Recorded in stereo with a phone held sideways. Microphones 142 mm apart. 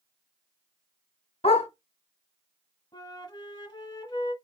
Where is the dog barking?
45° left (ahead or behind), 1.3 m.